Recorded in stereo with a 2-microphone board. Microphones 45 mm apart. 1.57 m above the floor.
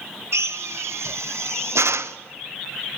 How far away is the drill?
About 0.8 m.